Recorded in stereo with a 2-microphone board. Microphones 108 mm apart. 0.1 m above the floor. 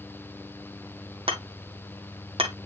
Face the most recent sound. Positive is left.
turn(degrees=-65)  # may be behind; listen again after turning